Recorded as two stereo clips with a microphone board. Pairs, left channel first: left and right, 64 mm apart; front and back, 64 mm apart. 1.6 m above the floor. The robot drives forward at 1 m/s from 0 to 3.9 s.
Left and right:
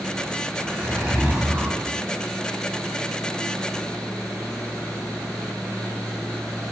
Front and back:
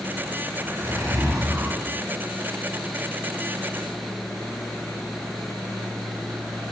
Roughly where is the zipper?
Behind right.